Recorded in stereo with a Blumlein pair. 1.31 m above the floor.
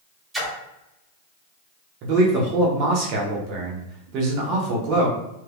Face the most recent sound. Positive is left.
turn(degrees=-35)